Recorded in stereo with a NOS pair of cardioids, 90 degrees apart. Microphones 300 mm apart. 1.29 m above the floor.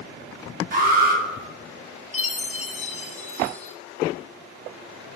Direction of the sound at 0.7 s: 35° right.